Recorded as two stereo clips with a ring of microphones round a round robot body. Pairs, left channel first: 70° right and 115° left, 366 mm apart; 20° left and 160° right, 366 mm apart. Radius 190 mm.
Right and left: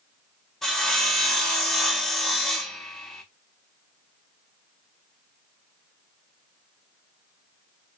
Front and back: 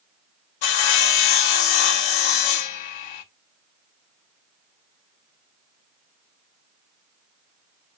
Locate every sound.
0.6 s sawing: 20° left, 0.5 m